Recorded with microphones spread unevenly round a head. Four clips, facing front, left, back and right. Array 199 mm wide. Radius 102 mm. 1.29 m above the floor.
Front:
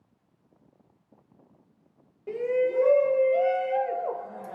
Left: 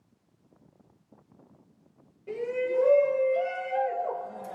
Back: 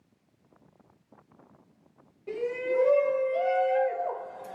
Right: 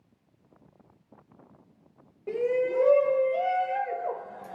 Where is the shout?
60° right, 1.5 m; by 4.6 s 25° left, 1.0 m.